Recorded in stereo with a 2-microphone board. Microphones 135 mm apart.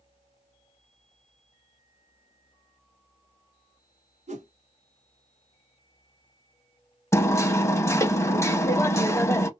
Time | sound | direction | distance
4.3 | a whoosh | 60° right (ahead or behind) | 0.9 m
7.1 | hammering | 20° left (ahead or behind) | 0.5 m